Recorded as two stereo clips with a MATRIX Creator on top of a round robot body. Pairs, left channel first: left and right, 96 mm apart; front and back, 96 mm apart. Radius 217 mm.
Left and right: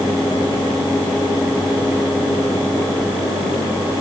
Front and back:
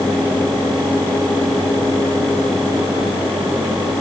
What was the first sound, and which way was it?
Only background noise.